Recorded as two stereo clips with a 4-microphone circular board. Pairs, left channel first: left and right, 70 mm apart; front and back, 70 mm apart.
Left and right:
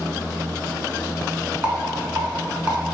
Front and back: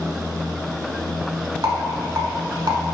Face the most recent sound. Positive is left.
turn(degrees=-155)